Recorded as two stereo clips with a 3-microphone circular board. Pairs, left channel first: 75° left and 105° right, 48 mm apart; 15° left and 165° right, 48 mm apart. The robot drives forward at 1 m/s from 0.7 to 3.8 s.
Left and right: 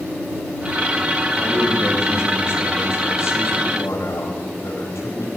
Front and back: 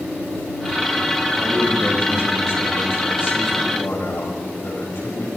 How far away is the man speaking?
About 8.5 m.